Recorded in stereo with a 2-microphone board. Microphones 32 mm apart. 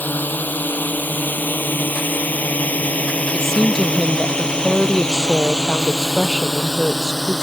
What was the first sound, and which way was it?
A drone, 70° left (ahead or behind).